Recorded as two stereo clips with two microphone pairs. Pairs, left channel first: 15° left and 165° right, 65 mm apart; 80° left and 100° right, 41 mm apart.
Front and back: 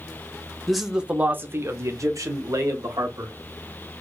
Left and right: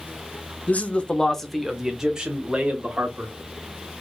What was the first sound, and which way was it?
A man speaking, 105° left.